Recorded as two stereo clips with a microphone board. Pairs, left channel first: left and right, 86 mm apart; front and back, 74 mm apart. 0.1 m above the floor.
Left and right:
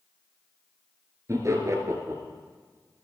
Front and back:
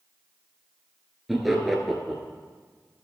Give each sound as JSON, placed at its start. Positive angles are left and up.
{"t": 1.3, "sound": "laughter", "azimuth_deg": -90, "distance_m": 1.5}